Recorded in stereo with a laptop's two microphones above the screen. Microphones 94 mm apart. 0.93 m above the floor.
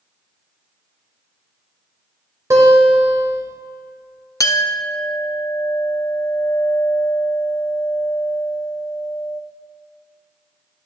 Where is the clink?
35° left (ahead or behind), 0.7 m.